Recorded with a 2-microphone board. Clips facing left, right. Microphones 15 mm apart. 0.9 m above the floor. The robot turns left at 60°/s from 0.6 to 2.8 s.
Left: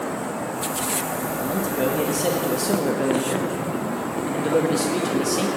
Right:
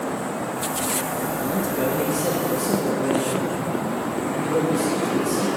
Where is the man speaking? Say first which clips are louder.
Left 1 dB; 170° right, 1.1 m; by 5.5 s 110° left, 1.1 m.